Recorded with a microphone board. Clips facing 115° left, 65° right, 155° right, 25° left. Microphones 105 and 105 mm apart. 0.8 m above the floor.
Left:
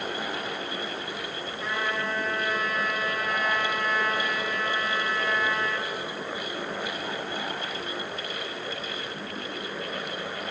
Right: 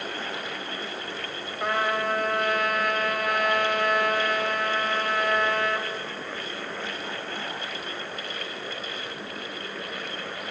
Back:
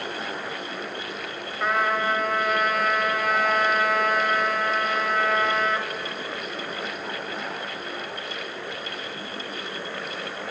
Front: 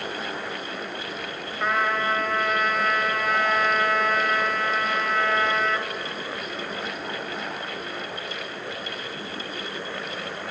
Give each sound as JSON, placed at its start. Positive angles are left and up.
{"t": 1.6, "sound": "a trumpet", "azimuth_deg": -70, "distance_m": 2.0}